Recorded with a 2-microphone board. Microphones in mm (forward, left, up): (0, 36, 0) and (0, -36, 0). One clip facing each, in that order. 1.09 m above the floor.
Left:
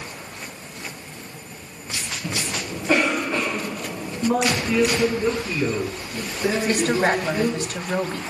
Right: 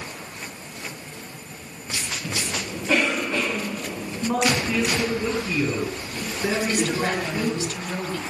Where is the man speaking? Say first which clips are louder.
Left 2 dB; centre (ahead or behind), 9 m.